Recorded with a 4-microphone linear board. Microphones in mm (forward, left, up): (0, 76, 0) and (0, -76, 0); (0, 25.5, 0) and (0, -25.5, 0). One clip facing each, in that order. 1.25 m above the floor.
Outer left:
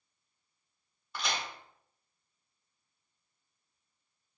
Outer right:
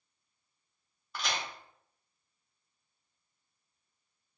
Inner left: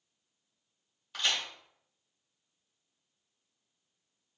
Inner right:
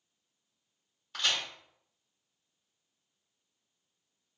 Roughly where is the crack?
Centre.